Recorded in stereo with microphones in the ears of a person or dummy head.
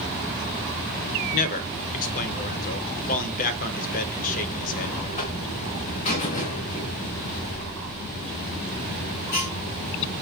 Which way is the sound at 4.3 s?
35° left (ahead or behind).